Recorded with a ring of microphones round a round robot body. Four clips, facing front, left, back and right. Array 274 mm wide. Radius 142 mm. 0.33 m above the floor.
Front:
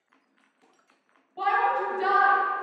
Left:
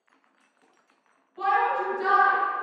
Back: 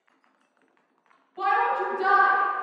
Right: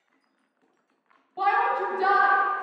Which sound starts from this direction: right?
A shout, at 1.4 s.